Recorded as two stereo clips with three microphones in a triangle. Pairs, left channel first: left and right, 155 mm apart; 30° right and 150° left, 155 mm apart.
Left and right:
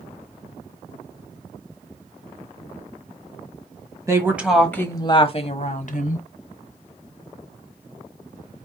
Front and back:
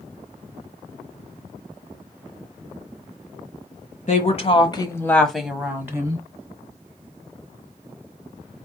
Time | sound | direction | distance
4.1 | a woman speaking | 25° right | 1.4 m